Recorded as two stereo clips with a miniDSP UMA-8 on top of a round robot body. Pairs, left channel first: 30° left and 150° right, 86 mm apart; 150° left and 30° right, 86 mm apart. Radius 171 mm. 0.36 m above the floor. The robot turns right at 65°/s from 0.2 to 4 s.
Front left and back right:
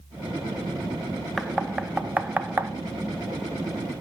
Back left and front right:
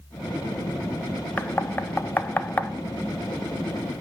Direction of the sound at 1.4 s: 115° left.